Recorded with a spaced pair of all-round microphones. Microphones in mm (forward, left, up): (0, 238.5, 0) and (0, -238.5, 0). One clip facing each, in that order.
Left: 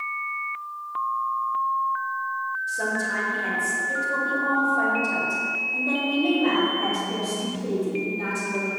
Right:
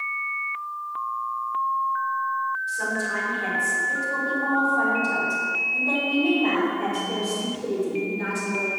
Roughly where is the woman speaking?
Left.